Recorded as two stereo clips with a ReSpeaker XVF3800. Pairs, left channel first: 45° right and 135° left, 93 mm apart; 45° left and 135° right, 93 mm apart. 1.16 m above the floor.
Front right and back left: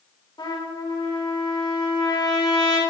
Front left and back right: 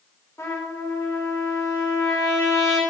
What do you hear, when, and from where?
0.4 s a trumpet: 15° right, 3 m